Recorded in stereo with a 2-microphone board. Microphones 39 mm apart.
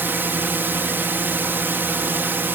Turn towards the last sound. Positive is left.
turn(degrees=-60)  # may be behind; listen again after turning